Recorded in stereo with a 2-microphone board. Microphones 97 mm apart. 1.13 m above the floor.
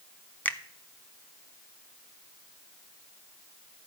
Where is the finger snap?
15° left (ahead or behind), 0.8 m.